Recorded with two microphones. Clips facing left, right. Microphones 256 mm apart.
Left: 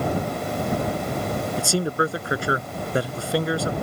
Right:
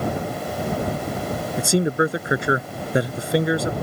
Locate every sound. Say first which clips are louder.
1.6 s a man speaking: right 6 dB; 20° right (ahead or behind)